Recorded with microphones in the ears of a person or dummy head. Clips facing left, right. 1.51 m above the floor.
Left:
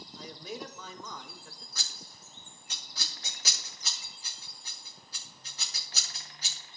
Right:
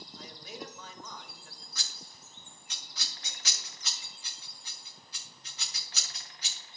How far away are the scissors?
About 0.6 m.